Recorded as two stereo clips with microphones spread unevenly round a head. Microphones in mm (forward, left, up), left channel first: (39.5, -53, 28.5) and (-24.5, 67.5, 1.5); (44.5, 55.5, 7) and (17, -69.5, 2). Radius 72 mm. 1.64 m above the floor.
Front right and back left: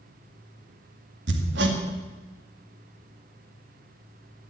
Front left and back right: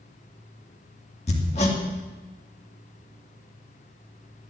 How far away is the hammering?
About 2 m.